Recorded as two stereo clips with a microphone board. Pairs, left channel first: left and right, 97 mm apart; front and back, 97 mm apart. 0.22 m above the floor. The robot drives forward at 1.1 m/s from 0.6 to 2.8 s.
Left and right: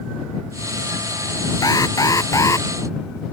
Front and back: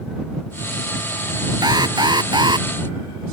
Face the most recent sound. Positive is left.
turn(degrees=145)